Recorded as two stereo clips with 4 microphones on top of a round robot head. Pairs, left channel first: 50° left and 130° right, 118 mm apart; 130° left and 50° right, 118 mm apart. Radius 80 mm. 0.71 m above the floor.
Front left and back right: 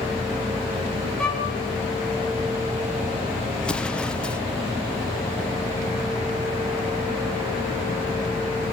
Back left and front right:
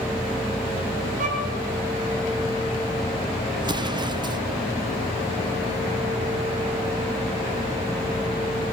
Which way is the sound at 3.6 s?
25° right.